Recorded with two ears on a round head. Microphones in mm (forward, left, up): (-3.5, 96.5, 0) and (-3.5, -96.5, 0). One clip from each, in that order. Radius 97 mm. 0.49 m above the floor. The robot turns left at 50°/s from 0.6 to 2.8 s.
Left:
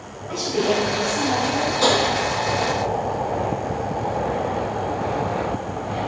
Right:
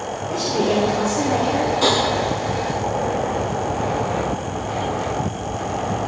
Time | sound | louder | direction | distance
0.3 | a woman speaking | right 1 dB | 15° left | 2.5 m
1.8 | tapping | left 1 dB | 5° left (ahead or behind) | 4 m